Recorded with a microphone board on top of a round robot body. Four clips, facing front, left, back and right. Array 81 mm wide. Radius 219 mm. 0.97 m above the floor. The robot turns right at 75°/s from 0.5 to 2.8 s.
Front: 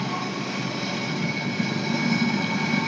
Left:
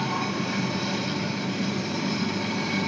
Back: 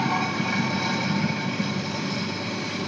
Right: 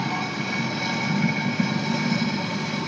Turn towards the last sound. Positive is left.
turn(degrees=5)